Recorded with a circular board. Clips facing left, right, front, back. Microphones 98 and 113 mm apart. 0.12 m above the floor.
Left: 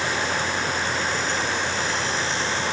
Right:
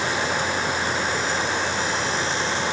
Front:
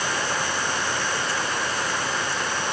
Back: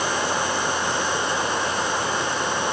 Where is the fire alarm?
I don't hear a fire alarm.